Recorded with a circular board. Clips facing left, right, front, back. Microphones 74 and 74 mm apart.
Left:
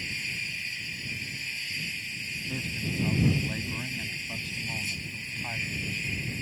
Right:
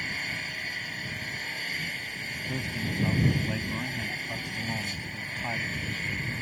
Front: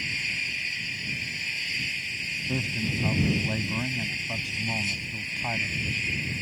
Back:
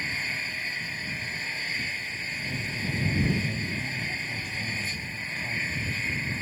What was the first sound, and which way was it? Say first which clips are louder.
An engine running: right 3 dB, back 1 dB; 130° right.